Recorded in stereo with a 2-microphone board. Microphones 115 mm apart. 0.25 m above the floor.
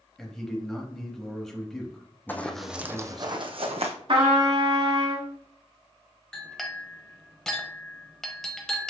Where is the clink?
5° left (ahead or behind), 0.9 m.